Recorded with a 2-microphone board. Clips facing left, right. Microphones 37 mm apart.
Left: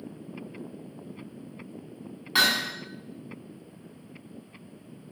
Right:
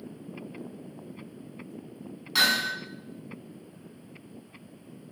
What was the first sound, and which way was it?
Hammering, 25° left (ahead or behind).